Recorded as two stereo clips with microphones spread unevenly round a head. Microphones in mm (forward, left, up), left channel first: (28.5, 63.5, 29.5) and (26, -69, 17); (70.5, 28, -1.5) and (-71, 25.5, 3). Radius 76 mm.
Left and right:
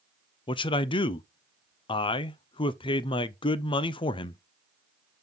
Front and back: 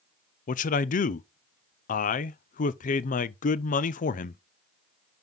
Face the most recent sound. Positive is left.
turn(degrees=35)